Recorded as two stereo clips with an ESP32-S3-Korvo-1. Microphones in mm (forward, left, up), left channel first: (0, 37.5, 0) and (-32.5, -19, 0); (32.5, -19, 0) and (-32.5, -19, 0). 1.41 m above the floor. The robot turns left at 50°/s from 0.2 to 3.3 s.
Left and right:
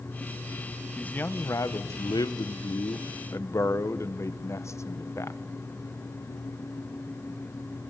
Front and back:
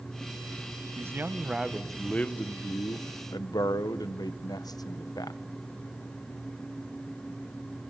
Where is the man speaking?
135° left, 1.0 m; by 5.4 s 15° left, 1.0 m.